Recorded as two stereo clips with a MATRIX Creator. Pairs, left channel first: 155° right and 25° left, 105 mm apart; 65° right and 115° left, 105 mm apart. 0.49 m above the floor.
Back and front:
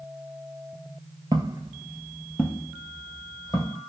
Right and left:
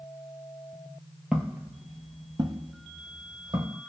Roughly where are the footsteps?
Ahead left.